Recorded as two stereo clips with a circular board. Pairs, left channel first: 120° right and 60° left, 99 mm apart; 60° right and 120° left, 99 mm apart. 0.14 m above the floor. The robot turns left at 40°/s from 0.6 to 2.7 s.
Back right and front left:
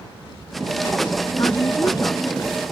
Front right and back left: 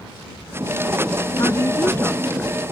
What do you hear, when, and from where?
1.4 s a woman speaking: 90° right; by 2.6 s 135° right